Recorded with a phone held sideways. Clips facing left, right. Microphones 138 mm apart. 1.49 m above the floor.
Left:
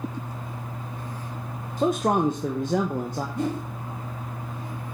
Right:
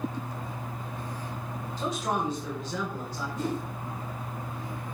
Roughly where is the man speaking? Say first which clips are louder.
Left 8 dB; left.